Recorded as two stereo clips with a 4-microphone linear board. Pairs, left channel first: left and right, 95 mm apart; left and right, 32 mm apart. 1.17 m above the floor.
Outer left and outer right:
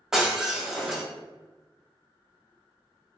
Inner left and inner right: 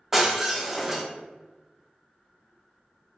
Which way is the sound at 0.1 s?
5° right (ahead or behind).